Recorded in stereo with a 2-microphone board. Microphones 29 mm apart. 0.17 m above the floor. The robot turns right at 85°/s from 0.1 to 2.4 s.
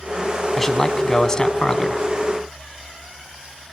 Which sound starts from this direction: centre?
A man speaking, at 0.6 s.